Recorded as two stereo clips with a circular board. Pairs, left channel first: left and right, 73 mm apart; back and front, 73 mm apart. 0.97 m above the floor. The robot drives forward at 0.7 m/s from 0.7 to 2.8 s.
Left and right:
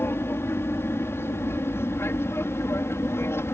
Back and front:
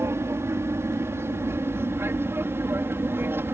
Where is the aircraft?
40° left; by 3.5 s 45° left.